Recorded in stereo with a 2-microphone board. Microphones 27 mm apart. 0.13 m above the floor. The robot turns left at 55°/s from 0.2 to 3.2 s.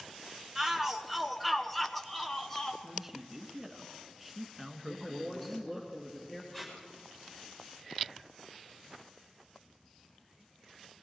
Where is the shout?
20° right (ahead or behind), 1.1 m; by 2.7 s 15° left (ahead or behind), 1.1 m.